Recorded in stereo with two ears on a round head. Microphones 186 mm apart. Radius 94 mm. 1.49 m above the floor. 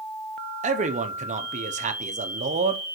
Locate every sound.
0.6 s a man speaking: 35° right (ahead or behind), 0.9 m